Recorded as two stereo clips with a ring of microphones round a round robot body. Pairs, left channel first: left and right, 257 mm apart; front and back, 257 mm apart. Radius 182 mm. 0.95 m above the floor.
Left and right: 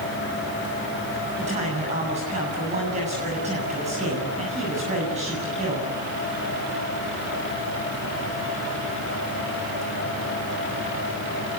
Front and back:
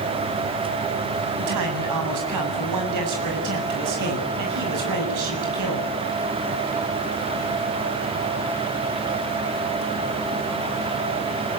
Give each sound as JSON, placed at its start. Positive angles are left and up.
{"t": 1.4, "sound": "a man speaking", "azimuth_deg": -165, "distance_m": 7.5}